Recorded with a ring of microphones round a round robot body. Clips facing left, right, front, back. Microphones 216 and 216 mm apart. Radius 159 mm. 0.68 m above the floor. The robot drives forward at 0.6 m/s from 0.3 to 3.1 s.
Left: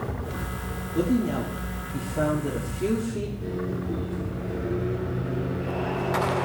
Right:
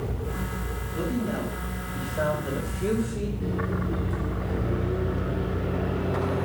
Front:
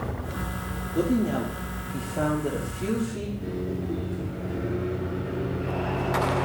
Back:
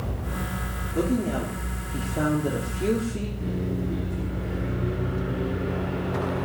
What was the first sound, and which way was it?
A woman speaking, 75° left.